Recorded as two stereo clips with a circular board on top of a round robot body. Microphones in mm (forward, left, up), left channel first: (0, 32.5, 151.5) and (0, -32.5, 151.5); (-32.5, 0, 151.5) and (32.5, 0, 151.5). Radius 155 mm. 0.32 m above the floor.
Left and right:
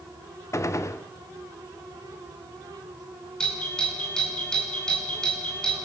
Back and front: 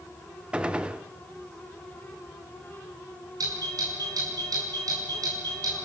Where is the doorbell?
10° left, 6.5 m.